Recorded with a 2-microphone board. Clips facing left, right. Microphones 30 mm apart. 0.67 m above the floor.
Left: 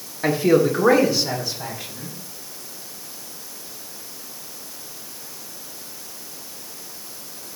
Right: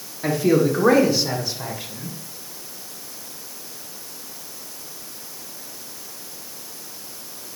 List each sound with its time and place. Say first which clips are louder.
0.2 s a man speaking: left 1 dB; 30° left (ahead or behind), 1.1 m; by 2.1 s 15° right (ahead or behind), 3 m